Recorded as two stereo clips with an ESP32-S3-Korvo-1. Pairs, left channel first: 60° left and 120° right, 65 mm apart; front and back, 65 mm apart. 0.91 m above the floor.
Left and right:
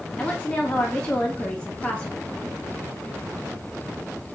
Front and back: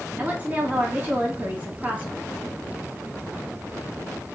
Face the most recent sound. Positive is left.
turn(degrees=125)